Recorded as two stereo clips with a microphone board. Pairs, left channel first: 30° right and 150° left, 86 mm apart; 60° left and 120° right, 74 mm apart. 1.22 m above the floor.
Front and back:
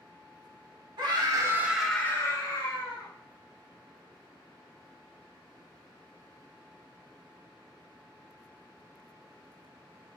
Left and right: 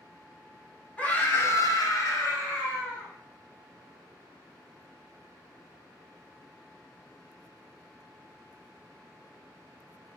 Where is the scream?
130° left, 1.1 m; by 3.1 s 5° left, 1.8 m.